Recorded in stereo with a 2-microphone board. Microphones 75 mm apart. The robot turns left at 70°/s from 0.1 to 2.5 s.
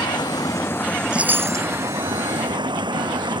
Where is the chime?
10° right; by 1.7 s 50° right.